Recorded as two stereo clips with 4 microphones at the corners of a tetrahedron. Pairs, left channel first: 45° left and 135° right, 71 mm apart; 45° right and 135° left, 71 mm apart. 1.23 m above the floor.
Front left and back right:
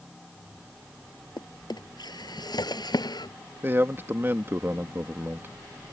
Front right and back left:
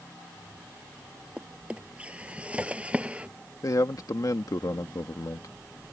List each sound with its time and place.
1.4 s a drawer: 60° left
3.6 s a man speaking: 75° right